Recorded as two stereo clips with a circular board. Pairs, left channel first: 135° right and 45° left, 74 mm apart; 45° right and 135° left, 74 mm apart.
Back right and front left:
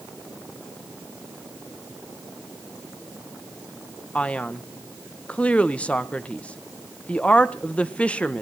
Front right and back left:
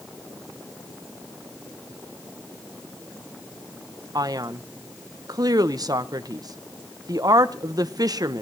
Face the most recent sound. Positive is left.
turn(degrees=155)